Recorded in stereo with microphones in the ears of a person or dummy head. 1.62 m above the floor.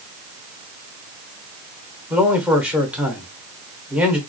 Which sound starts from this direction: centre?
A man speaking, at 2.1 s.